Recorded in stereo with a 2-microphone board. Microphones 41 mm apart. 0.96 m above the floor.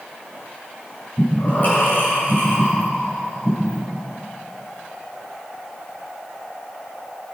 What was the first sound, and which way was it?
Breathing, 45° left (ahead or behind).